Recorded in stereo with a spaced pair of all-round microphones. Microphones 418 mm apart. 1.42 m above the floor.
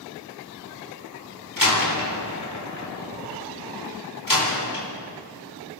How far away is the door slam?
About 4.5 m.